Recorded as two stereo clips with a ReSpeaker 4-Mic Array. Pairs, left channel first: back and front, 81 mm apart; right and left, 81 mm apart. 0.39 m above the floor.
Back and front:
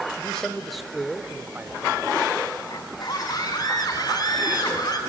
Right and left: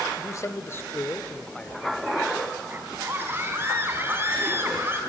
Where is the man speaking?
105° right, 1.1 m; by 2.2 s 10° left, 1.0 m.